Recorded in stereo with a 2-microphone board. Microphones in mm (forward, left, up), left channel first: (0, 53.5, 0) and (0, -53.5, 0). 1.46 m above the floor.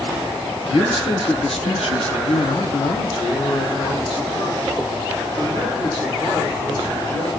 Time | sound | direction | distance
0.7 | a man speaking | 55° left (ahead or behind) | 1.2 m